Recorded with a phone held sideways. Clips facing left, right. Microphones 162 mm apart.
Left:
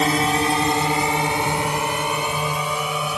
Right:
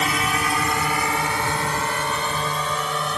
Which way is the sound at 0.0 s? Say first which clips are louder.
Left 5 dB; 35° left (ahead or behind).